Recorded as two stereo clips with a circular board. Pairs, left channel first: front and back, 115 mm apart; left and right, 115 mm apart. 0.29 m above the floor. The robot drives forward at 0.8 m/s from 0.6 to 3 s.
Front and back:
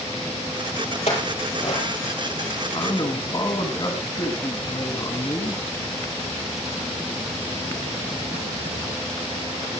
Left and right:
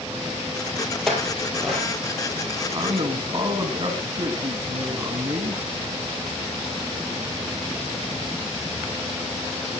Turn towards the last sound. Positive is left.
turn(degrees=-40)